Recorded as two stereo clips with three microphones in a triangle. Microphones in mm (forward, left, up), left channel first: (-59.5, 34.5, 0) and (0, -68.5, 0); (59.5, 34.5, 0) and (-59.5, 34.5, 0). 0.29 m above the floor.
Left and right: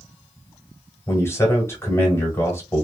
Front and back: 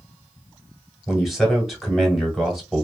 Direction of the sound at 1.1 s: 90° left.